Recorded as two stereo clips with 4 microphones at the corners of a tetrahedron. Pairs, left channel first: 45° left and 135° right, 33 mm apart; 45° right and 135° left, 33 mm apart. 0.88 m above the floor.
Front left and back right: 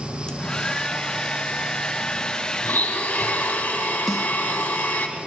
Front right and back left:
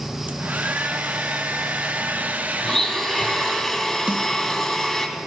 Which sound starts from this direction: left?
A hair dryer, at 0.3 s.